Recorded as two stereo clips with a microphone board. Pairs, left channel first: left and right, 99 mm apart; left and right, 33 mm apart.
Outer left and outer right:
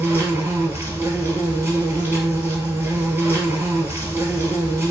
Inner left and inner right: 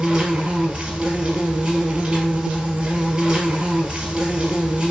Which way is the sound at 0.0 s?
25° right (ahead or behind).